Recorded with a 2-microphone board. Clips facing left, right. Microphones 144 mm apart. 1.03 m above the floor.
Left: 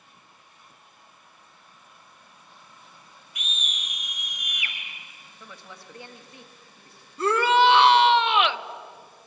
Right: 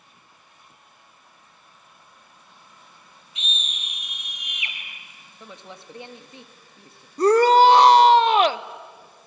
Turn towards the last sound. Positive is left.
turn(degrees=-40)  # may be behind; listen again after turning